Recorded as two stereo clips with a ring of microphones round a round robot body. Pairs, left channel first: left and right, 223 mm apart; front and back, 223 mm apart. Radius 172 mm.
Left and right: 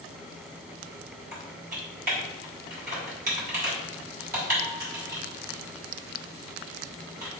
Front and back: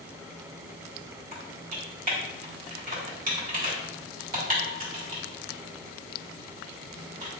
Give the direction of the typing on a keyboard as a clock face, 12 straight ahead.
5 o'clock.